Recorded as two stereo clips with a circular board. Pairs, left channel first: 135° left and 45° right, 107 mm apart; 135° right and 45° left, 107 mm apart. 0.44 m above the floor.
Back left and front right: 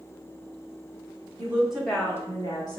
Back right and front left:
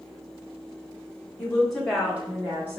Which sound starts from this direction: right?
A woman speaking, at 1.4 s.